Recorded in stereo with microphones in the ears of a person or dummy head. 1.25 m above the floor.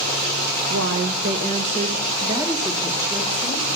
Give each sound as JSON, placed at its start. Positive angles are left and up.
{"t": 0.7, "sound": "a woman speaking", "side_deg": -65, "distance_m": 0.6}